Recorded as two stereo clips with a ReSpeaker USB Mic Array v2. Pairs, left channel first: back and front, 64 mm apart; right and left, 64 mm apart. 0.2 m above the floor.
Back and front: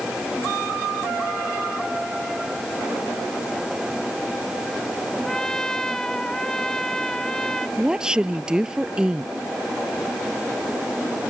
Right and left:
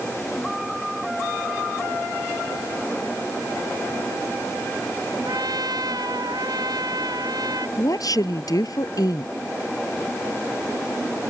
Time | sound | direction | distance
5.2 | a trumpet | 100° left | ?
7.8 | a woman speaking | 80° right | ?